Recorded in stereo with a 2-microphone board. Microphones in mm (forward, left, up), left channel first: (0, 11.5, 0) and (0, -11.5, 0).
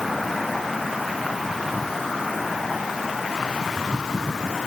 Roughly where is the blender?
I don't hear a blender.